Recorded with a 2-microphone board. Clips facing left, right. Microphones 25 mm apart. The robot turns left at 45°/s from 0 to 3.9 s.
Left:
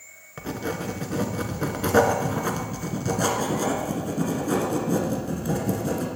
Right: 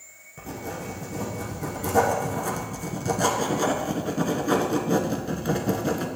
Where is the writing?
130° left, 1.0 m; by 6.1 s 30° right, 1.0 m.